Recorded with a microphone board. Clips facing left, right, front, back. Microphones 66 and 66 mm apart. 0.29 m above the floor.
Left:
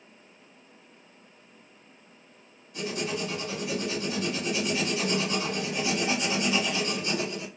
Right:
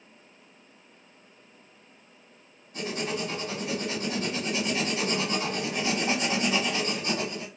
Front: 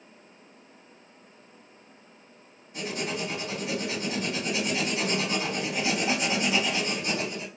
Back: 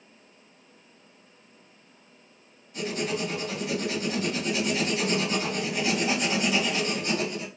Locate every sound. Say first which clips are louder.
2.7 s writing: even, back 2 dB; 55° right, 2 m